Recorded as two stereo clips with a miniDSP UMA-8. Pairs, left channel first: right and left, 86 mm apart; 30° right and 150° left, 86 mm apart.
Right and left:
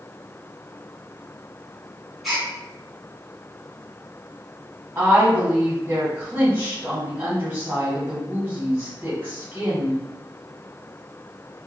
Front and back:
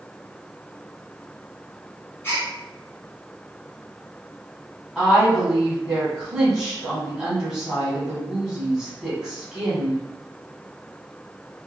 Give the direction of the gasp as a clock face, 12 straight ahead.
12 o'clock.